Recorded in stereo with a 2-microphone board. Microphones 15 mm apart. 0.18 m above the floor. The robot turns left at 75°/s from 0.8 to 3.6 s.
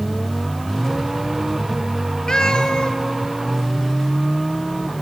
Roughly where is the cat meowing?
Left.